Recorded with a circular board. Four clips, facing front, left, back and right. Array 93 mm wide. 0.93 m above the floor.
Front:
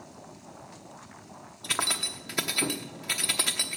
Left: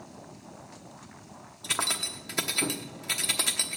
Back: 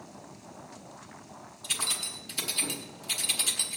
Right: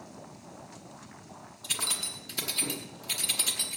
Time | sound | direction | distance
1.6 | keys jangling | 35° left | 0.9 m